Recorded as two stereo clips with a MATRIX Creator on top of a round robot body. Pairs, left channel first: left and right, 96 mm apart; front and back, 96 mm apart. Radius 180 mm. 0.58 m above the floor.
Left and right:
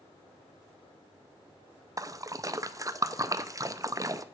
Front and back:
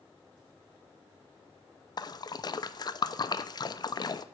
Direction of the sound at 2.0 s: 40° right.